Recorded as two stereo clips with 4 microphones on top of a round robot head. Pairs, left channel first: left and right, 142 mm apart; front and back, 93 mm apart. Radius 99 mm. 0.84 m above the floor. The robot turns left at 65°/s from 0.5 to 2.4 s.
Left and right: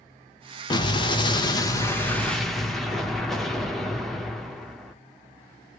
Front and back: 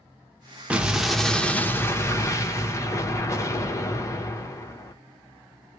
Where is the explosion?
115° left, 1.0 m; by 5.0 s 5° left, 1.0 m.